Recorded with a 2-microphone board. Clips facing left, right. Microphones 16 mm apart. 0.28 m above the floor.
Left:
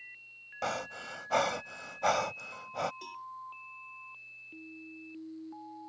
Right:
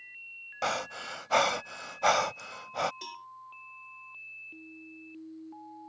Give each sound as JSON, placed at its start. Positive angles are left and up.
{"t": 0.6, "sound": "breathing", "side_deg": -35}
{"t": 3.0, "sound": "a cowbell", "side_deg": -35}